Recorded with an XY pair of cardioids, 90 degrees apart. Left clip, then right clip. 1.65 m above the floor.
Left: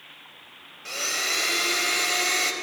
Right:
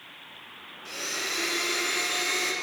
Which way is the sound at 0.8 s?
55° left.